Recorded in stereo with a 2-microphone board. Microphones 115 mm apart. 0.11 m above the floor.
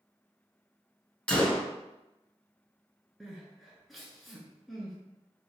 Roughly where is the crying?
Centre.